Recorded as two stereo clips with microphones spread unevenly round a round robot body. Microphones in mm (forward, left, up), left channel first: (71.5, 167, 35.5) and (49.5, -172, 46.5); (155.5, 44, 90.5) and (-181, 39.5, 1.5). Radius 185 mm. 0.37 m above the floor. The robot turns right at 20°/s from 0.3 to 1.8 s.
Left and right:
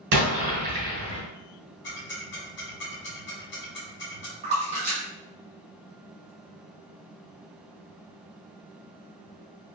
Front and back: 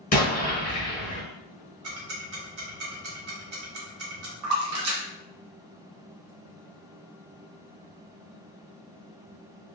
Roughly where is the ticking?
Behind left.